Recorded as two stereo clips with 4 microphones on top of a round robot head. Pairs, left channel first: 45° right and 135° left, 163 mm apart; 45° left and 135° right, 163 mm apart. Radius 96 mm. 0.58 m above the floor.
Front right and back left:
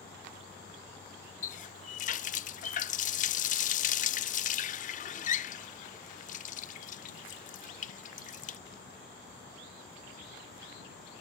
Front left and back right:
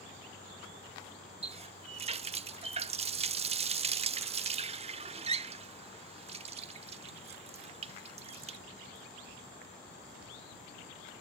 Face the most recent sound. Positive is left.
turn(degrees=-85)